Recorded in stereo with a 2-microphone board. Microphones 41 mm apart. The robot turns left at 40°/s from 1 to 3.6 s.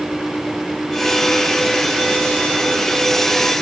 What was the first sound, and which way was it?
Only background noise.